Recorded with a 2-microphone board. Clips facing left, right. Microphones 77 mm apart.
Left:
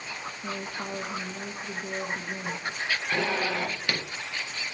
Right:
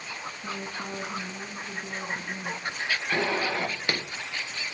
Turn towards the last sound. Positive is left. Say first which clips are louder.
# right 1 dB
turn(degrees=-20)  # may be behind; listen again after turning